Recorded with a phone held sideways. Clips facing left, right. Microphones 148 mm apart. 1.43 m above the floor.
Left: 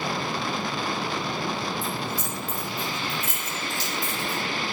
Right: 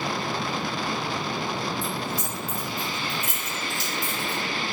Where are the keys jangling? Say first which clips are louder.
Even; 45° right (ahead or behind), 1.1 m.